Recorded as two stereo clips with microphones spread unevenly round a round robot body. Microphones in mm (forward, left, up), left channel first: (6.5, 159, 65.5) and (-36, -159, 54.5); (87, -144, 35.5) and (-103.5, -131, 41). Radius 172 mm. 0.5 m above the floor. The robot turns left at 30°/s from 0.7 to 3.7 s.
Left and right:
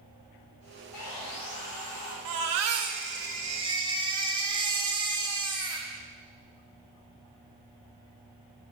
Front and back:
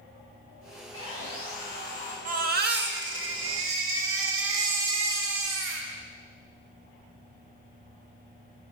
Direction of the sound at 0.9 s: 70° left.